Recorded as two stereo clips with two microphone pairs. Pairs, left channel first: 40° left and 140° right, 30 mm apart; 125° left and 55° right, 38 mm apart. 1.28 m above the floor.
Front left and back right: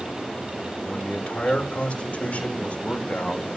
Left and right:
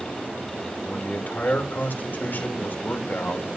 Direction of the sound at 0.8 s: 85° left.